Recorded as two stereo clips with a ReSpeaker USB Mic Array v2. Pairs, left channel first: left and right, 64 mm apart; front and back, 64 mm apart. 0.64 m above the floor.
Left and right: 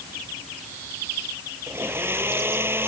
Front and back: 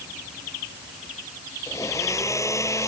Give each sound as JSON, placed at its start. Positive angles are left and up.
{"t": 1.7, "sound": "a blender", "azimuth_deg": -35}